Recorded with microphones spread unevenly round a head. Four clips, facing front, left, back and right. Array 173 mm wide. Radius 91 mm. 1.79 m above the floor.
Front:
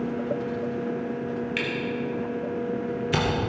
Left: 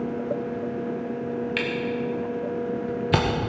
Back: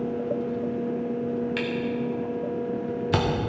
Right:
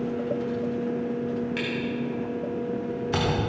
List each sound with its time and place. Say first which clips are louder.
1.6 s a camera shutter: left 2 dB, back 1 dB; 110° left, 1.8 m